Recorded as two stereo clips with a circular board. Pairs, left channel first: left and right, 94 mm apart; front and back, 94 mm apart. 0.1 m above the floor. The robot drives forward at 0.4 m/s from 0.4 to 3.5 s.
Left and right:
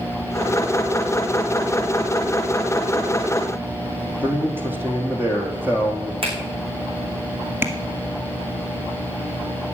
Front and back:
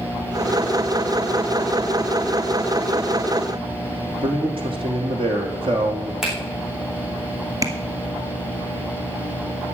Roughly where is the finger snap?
Right.